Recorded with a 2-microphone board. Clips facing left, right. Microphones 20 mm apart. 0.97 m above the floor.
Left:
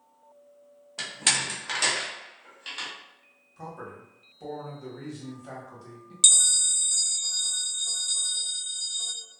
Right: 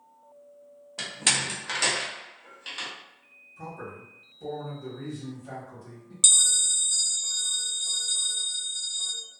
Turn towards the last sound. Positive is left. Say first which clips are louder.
# even
turn(degrees=15)  # may be behind; listen again after turning